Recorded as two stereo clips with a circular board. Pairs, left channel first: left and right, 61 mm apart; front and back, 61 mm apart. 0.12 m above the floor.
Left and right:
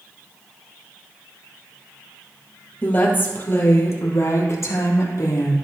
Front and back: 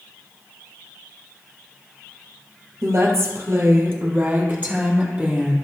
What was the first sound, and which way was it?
A woman speaking, 150° left.